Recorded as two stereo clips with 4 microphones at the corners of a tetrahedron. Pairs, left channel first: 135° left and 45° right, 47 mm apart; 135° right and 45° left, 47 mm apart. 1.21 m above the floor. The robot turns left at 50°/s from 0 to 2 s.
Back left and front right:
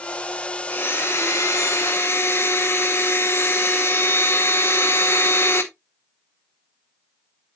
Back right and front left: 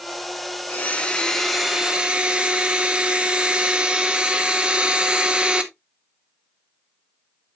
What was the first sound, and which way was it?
A blender, 175° left.